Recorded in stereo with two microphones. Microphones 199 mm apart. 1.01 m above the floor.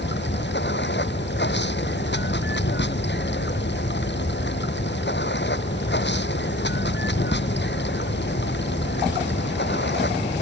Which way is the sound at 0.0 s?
60° left (ahead or behind).